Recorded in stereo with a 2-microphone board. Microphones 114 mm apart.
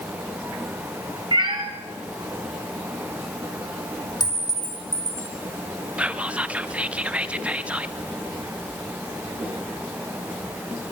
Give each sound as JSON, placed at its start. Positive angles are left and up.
{"t": 1.3, "sound": "a cat meowing", "side_deg": -40, "distance_m": 2.0}
{"t": 4.2, "sound": "a clink", "side_deg": 35, "distance_m": 1.8}
{"t": 6.0, "sound": "whispering", "side_deg": -10, "distance_m": 0.7}